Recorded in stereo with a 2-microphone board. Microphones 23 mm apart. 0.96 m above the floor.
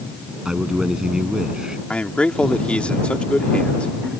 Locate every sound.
0.5 s a man speaking: 35° right (ahead or behind)
1.9 s a man speaking: 65° left (ahead or behind)